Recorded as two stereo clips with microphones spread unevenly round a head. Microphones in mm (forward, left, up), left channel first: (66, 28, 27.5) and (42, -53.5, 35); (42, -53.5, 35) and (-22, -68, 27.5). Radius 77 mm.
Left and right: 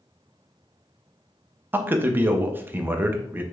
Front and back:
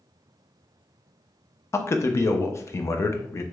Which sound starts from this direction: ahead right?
A man speaking, at 1.7 s.